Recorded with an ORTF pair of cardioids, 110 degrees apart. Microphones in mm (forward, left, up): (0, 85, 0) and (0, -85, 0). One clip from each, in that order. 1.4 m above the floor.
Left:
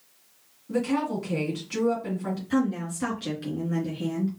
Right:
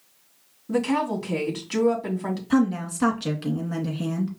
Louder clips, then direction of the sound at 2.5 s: Right 4 dB; 45° right.